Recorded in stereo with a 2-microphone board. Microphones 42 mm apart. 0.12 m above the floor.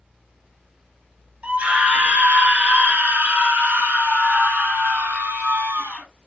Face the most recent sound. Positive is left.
turn(degrees=-70)  # may be behind; listen again after turning